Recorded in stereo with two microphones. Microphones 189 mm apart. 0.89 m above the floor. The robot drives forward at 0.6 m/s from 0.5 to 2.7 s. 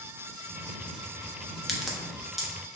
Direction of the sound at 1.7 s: Centre (ahead or behind).